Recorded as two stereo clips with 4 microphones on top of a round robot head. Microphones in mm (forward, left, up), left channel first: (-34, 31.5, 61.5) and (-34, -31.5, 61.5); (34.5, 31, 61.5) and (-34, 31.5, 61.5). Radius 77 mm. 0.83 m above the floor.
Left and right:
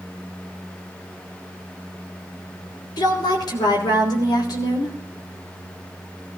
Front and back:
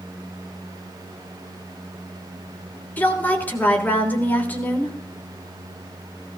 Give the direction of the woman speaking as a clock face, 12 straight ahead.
10 o'clock.